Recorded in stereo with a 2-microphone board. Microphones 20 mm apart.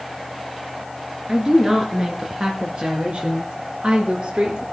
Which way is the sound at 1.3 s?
25° right (ahead or behind).